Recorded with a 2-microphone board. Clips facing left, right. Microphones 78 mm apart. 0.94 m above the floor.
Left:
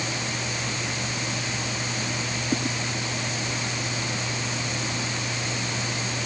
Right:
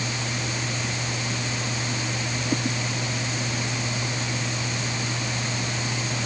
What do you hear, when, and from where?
Only background noise.